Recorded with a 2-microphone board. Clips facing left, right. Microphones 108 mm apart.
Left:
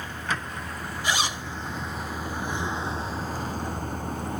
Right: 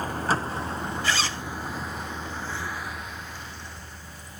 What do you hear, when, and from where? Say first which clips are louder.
0.0 s a vehicle: right 5 dB; 40° right (ahead or behind); by 4.4 s 60° left (ahead or behind)
1.0 s a zipper: left 2 dB; 15° left (ahead or behind)